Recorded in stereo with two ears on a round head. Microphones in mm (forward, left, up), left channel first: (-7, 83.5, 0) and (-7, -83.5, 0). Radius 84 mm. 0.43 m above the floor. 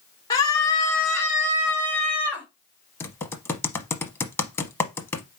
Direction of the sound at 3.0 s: 15° left (ahead or behind).